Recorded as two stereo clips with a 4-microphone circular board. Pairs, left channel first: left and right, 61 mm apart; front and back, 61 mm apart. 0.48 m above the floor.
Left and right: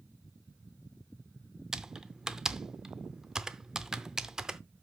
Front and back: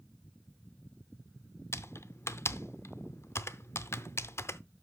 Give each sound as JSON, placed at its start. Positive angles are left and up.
{"t": 1.7, "sound": "typing on a keyboard", "azimuth_deg": -15, "distance_m": 0.6}